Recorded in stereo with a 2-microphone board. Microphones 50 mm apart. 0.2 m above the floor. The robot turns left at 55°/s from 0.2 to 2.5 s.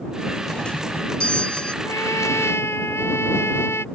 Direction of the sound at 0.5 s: 15° left (ahead or behind).